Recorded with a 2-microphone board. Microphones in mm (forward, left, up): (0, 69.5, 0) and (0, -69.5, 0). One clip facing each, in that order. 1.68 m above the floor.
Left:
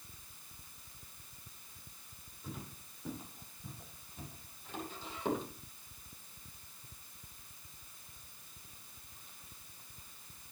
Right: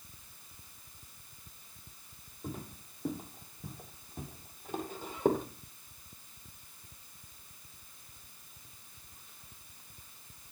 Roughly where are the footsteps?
Right.